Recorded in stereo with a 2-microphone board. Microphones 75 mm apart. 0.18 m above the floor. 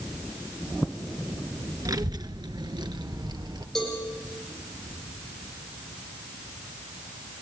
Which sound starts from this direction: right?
A child speaking, at 1.9 s.